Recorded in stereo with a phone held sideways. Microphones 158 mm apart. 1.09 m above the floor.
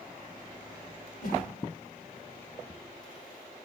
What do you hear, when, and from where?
1.2 s a whoosh: 80° left, 2.5 m